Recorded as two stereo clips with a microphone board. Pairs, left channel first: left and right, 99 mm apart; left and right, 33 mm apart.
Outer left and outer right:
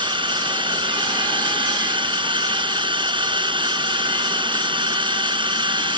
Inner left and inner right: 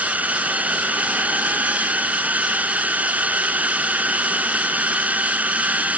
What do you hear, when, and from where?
0.0 s a drone: 55° right (ahead or behind)